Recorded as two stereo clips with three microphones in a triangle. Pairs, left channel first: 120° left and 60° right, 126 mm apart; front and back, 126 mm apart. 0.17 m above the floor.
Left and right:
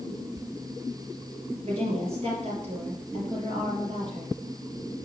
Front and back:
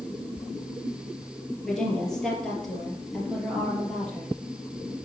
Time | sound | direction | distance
1.6 | a woman speaking | 85° right | 4.5 m